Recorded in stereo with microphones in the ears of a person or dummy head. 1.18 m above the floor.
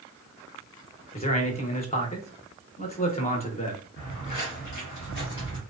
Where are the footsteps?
50° left (ahead or behind), 1.7 m; by 5.6 s 25° left (ahead or behind), 1.4 m.